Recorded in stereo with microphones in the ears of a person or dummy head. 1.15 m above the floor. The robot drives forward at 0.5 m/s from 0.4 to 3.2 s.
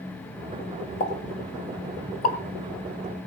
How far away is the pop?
About 2.5 m.